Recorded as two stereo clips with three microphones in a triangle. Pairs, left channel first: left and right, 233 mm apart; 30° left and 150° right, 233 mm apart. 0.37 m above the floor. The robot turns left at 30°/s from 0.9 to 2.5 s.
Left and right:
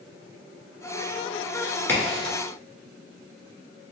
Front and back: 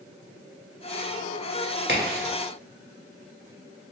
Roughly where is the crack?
Behind.